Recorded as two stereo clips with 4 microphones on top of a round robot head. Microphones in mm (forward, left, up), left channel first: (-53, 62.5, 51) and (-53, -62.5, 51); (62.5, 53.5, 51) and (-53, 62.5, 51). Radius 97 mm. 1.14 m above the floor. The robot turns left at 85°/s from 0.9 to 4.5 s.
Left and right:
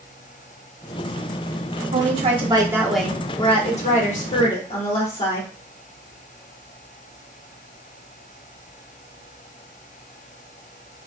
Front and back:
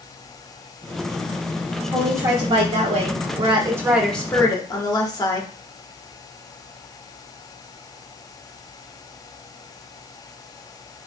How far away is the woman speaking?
About 1.5 m.